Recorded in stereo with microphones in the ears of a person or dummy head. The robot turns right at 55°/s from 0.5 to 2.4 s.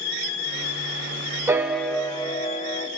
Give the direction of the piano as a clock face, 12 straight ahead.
12 o'clock.